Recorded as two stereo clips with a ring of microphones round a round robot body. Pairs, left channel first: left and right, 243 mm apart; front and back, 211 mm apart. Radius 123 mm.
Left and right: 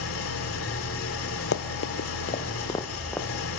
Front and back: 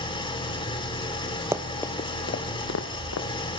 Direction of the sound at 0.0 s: 65° left.